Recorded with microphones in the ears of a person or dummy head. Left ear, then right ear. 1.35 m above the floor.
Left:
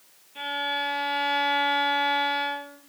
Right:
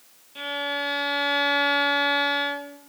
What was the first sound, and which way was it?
A violin, 10° right (ahead or behind).